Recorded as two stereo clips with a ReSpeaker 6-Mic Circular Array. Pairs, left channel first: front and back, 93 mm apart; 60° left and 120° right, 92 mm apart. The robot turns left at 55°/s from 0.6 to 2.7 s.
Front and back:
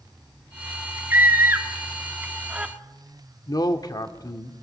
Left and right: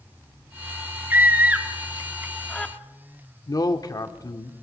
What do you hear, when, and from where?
1.1 s a scream: 150° right, 1.1 m; by 2.7 s 120° left, 1.1 m
3.5 s a man speaking: 30° left, 1.2 m